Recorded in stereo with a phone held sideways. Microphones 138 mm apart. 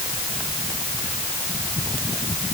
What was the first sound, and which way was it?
Only background noise.